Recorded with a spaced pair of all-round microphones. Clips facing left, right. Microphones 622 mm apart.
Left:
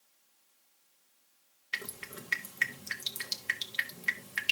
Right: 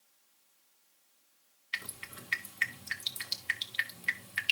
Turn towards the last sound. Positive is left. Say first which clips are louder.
# left 6 dB
turn(degrees=65)  # may be behind; listen again after turning